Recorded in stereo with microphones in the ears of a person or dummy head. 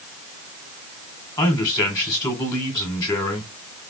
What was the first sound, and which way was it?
A man speaking, 15° left (ahead or behind).